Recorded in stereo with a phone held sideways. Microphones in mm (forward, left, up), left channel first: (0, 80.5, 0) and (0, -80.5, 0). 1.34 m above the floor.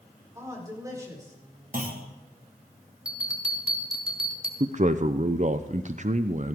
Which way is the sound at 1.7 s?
60° right (ahead or behind).